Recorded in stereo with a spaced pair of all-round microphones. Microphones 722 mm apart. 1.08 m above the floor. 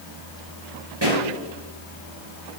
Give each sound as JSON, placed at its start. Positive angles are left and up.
{"t": 1.0, "sound": "a pop", "side_deg": -35, "distance_m": 4.5}